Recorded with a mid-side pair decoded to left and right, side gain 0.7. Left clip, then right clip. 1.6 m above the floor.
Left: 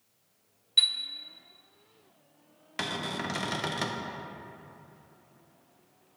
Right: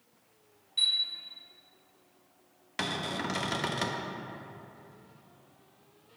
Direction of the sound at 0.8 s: 50° left.